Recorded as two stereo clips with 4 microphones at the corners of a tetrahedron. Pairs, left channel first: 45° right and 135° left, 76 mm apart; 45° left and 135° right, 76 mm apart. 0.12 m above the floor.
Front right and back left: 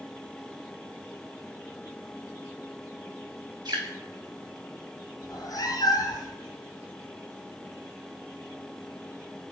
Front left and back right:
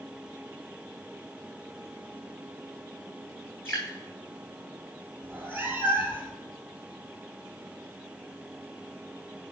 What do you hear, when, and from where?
3.6 s dripping: 110° left, 4 m
5.2 s a cat meowing: 70° right, 1.4 m